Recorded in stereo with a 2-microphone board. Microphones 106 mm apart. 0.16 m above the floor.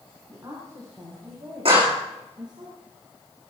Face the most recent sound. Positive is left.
turn(degrees=-65)  # may be behind; listen again after turning